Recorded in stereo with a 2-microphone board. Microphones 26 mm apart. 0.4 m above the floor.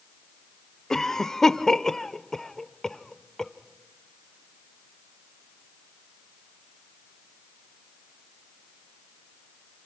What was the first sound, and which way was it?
A cough, 20° left (ahead or behind).